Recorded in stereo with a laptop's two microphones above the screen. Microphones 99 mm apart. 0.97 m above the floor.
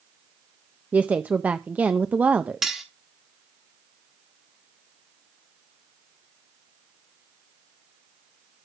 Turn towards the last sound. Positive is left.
turn(degrees=-5)  # may be behind; listen again after turning